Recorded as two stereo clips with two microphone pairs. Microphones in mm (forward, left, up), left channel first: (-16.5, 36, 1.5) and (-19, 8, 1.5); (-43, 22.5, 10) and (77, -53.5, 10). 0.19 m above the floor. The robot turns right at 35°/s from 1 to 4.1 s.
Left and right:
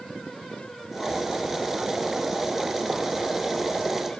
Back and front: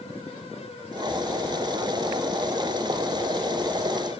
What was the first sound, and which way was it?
Only background noise.